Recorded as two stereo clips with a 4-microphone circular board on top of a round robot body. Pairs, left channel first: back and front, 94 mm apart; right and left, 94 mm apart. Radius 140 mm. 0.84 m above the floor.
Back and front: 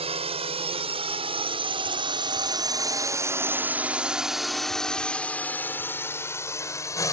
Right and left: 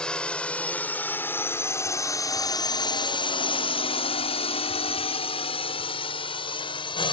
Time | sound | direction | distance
0.0 | a drone | 10° right | ?